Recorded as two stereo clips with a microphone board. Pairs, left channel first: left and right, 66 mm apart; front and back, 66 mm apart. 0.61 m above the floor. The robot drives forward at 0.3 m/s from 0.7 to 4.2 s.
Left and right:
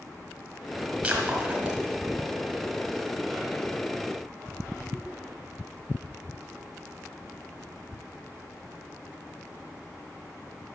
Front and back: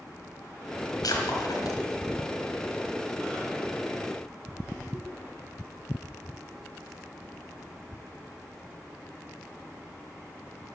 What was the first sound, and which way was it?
Breaking glass, 25° right.